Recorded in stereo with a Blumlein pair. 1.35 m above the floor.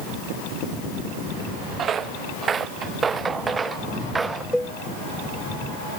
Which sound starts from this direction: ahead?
A cowbell, at 4.5 s.